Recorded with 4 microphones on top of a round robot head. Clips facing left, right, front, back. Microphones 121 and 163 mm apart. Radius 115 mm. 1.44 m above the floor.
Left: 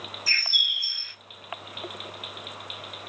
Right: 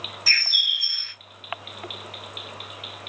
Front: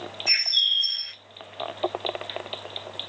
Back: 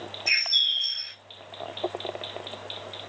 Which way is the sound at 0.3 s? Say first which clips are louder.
Right 2 dB, even; 105° right.